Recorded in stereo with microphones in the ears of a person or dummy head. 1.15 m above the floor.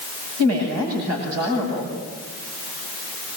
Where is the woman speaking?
85° right, 8.5 m.